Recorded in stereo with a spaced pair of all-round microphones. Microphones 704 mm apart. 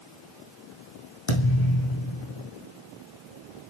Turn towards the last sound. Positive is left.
turn(degrees=40)  # may be behind; listen again after turning